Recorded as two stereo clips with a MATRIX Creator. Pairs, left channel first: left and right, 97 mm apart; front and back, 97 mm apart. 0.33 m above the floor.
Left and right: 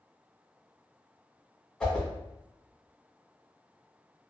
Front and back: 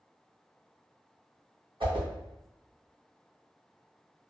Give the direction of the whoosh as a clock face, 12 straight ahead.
6 o'clock.